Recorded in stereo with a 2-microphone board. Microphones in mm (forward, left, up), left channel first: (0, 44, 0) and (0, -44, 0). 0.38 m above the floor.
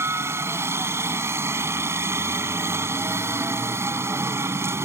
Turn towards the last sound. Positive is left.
turn(degrees=-30)  # may be behind; listen again after turning